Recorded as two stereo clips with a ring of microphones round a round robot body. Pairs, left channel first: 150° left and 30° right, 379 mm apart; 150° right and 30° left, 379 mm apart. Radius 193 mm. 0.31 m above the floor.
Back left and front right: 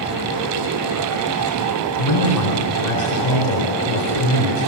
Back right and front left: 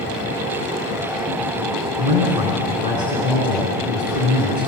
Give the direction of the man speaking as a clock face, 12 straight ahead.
8 o'clock.